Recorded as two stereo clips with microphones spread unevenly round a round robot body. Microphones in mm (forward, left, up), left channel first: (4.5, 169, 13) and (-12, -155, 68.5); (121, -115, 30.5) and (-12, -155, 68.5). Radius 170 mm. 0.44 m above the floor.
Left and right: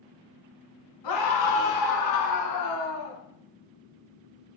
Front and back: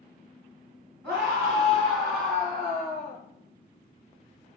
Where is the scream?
110° left, 5 m; by 3.2 s 140° left, 4.5 m.